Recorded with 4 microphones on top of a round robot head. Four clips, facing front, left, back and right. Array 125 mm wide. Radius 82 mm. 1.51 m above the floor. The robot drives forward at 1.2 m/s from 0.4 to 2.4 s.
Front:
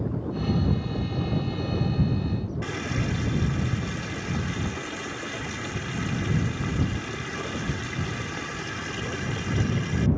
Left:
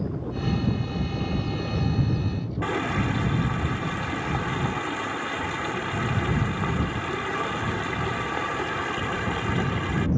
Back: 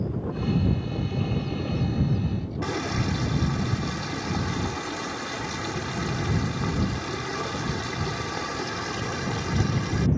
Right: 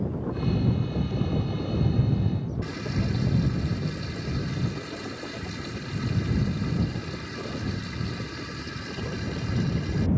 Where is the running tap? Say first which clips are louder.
Left 5 dB, back 2 dB; 115° left.